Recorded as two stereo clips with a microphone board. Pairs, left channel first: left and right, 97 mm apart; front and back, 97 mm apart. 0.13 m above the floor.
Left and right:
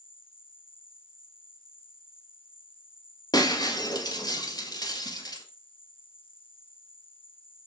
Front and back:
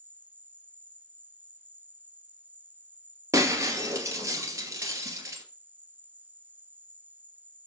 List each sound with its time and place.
0.0 s an insect: 110° left, 0.9 m
3.3 s breaking glass: 125° left, 1.7 m